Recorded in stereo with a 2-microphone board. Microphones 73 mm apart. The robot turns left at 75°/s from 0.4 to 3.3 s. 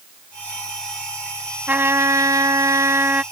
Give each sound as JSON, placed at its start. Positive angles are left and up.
{"t": 1.7, "sound": "a trumpet", "azimuth_deg": -30}